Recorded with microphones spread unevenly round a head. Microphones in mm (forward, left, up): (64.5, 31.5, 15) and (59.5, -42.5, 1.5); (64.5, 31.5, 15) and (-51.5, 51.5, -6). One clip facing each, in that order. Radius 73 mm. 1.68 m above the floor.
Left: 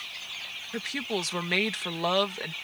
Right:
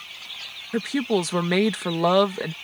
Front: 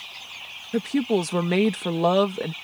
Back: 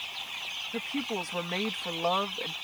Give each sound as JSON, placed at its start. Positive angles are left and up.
{"t": 0.7, "sound": "a woman speaking", "azimuth_deg": -35}